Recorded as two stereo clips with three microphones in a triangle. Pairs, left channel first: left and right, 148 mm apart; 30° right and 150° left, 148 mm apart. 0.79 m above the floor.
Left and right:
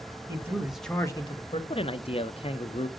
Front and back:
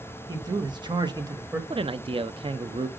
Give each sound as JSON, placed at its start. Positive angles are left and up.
{"t": 0.3, "sound": "a man speaking", "azimuth_deg": -150, "distance_m": 1.3}
{"t": 1.7, "sound": "a man speaking", "azimuth_deg": 115, "distance_m": 0.5}